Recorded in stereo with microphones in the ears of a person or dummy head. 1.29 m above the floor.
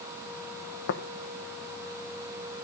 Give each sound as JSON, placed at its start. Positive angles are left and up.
{"t": 0.9, "sound": "tapping", "side_deg": 70, "distance_m": 1.2}